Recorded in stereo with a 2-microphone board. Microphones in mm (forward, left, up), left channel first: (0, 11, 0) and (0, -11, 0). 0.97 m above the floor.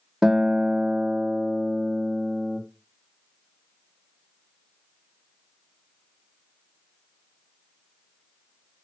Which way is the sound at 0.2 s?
35° right (ahead or behind).